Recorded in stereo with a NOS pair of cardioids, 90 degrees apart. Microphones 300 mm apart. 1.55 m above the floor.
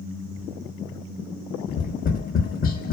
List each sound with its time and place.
1.7 s tapping: 30° left, 0.7 m